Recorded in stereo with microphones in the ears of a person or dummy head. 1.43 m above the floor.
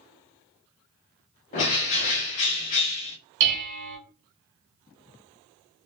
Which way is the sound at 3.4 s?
45° right (ahead or behind).